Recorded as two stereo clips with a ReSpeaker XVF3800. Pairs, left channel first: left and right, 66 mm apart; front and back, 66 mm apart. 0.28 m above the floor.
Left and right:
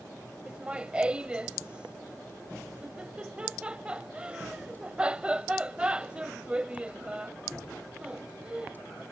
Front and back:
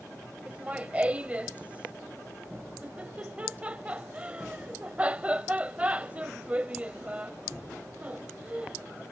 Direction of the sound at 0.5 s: 140° right.